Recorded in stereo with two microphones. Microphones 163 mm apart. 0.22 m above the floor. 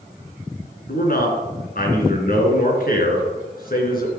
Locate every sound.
0.9 s a man speaking: 60° left (ahead or behind), 3 m